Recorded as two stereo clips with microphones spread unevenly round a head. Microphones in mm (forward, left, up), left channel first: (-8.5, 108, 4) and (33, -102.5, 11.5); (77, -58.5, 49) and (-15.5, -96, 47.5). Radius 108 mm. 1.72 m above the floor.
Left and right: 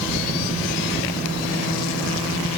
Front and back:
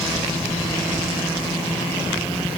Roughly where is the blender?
I don't hear a blender.